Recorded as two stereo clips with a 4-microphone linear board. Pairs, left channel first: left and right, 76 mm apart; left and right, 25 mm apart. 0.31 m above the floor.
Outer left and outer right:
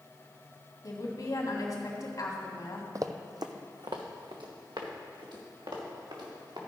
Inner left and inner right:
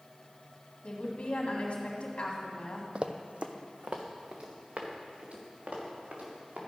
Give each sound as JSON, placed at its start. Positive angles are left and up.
{"t": 0.8, "sound": "a woman speaking", "side_deg": 55, "distance_m": 1.8}
{"t": 3.0, "sound": "running footsteps", "side_deg": -45, "distance_m": 0.5}